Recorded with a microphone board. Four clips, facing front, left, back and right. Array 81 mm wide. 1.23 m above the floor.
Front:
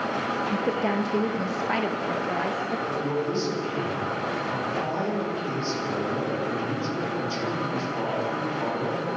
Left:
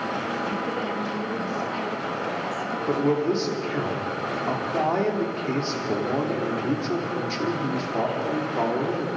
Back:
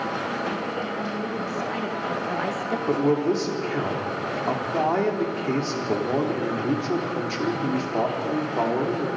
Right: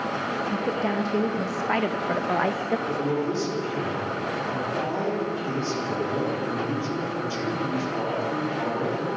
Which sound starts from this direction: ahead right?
A woman speaking, at 0.5 s.